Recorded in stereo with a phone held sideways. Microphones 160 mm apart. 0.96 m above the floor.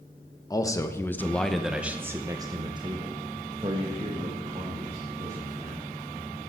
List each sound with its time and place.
0.5 s a man speaking: 25° left (ahead or behind), 1.0 m; by 5.8 s 40° right (ahead or behind), 2.5 m